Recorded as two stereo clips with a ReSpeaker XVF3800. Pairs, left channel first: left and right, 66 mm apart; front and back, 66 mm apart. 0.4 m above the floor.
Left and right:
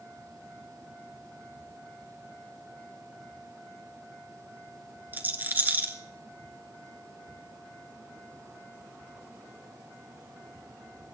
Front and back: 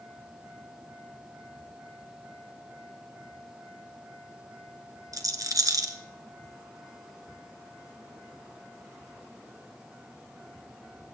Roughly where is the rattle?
Behind right.